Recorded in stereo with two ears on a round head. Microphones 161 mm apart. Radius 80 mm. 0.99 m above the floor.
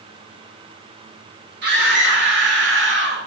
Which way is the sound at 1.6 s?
65° right (ahead or behind).